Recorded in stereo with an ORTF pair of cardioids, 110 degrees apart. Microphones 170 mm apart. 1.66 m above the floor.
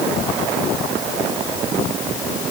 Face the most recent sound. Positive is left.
No sound to turn to.